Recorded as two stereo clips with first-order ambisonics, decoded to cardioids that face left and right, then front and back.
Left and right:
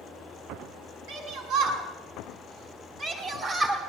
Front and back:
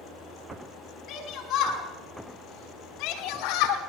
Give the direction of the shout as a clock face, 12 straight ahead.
2 o'clock.